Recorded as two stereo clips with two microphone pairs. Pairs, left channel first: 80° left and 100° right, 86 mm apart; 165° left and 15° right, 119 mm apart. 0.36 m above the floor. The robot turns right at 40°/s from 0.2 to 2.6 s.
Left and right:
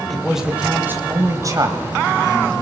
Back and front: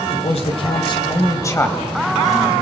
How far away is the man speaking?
About 2 m.